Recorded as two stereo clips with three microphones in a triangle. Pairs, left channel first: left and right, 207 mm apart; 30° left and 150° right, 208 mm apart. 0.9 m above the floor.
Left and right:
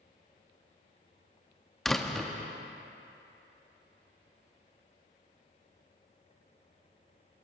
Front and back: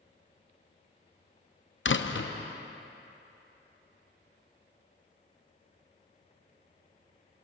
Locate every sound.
1.9 s a door slam: straight ahead, 0.5 m